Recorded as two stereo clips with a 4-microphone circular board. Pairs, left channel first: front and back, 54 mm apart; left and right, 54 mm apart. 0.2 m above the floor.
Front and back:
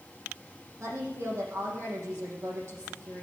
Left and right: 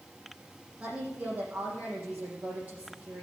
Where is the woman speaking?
150° right, 6.5 m.